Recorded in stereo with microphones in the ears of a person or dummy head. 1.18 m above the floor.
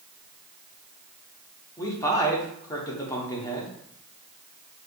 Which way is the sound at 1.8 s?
20° left (ahead or behind).